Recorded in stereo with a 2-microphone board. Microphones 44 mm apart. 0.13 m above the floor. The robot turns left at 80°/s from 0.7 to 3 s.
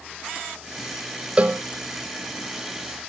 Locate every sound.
1.4 s a cowbell: 30° right (ahead or behind), 1.0 m; by 1.6 s 45° right (ahead or behind), 1.0 m